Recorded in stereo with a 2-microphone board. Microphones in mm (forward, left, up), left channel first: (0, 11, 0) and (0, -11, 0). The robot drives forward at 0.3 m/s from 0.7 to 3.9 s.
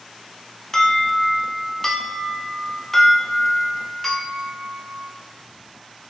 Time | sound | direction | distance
0.7 | an alarm | 25° left (ahead or behind) | 0.7 m